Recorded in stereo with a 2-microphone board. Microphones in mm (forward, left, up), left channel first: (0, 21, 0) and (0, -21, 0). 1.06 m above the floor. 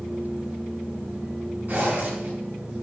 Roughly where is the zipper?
Right.